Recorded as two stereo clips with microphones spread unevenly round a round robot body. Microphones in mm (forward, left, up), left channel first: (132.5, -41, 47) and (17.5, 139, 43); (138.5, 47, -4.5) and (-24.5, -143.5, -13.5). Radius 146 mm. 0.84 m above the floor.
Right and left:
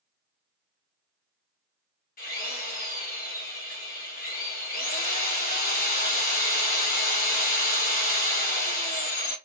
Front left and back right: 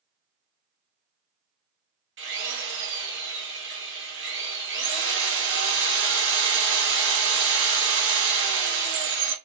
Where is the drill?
105° right, 1.8 m.